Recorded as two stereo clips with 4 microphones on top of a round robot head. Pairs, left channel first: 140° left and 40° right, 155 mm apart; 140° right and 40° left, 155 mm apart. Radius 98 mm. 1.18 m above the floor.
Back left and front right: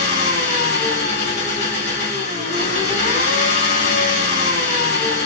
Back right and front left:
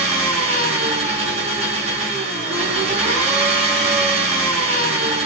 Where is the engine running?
90° left, 1.7 m.